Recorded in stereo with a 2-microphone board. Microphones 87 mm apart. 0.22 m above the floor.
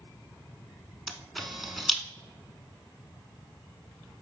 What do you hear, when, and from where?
1.1 s a camera shutter: centre (ahead or behind), 0.7 m